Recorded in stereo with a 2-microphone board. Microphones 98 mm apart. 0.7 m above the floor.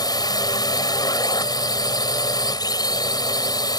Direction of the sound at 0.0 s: 45° left (ahead or behind).